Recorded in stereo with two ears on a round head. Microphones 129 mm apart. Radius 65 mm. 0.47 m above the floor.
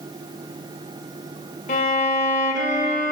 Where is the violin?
55° left (ahead or behind), 1.0 m.